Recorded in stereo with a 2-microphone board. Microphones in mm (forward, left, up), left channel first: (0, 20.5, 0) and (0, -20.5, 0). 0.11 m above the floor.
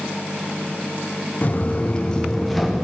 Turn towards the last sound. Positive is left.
turn(degrees=-10)  # may be behind; listen again after turning